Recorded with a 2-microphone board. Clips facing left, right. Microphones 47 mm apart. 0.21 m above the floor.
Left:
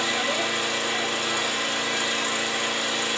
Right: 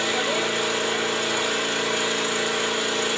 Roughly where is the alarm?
No alarm in this recording.